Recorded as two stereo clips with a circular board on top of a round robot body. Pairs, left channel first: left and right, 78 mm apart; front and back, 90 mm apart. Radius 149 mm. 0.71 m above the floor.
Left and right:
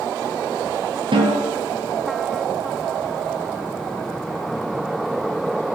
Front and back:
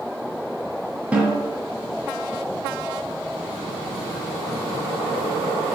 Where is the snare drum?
105° right, 2 m.